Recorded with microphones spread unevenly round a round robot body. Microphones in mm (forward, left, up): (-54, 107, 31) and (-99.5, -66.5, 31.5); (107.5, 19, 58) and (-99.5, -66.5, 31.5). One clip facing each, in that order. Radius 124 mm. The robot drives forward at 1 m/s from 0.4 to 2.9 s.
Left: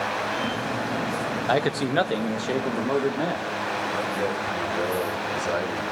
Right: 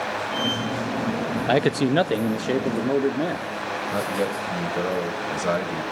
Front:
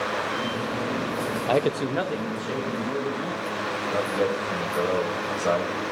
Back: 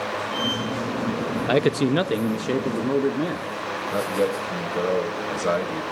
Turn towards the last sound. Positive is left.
turn(degrees=-100)